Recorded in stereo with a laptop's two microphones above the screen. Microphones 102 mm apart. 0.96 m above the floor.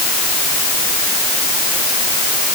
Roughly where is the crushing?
I don't hear crushing.